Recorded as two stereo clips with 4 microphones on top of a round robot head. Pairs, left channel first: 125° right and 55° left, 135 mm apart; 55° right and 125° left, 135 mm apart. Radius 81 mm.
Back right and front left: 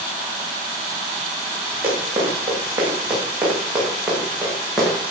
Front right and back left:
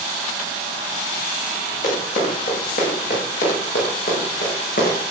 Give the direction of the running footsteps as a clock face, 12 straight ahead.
1 o'clock.